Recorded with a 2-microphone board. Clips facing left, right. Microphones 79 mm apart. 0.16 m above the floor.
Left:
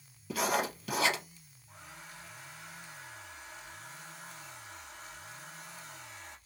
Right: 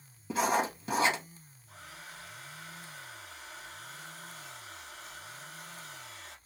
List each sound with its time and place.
0.3 s writing: 30° right (ahead or behind), 2.0 m
1.7 s a hair dryer: 75° right (ahead or behind), 2.5 m